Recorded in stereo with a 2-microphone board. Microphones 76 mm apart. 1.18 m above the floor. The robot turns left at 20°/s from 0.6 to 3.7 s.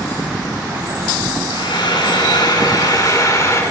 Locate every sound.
1.5 s frying: 85° left, 6.5 m; by 3.6 s 45° left, 6.5 m